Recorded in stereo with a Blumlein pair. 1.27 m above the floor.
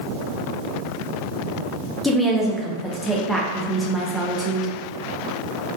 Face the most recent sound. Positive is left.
turn(degrees=5)